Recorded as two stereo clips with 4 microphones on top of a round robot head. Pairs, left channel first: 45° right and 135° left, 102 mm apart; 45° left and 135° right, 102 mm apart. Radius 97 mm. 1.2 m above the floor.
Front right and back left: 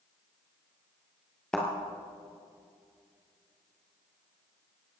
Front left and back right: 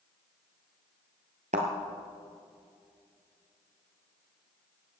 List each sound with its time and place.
1.5 s a thud: 125° right, 1.6 m